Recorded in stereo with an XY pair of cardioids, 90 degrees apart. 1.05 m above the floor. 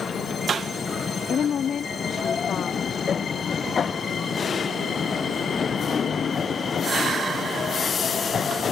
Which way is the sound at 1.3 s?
65° left.